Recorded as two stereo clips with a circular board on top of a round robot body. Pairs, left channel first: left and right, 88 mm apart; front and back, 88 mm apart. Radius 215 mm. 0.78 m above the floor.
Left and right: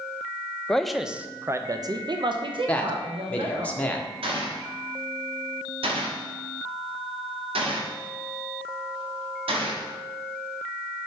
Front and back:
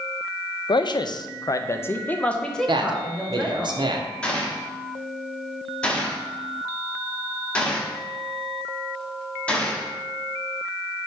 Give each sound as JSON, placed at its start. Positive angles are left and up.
{"t": 0.7, "sound": "a man speaking", "azimuth_deg": 10, "distance_m": 0.8}
{"t": 2.7, "sound": "a man speaking", "azimuth_deg": 165, "distance_m": 1.2}
{"t": 4.2, "sound": "a gunshot", "azimuth_deg": -80, "distance_m": 1.4}